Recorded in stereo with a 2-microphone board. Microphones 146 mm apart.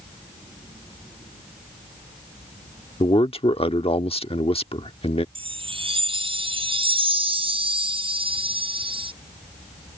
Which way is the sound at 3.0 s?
40° left (ahead or behind).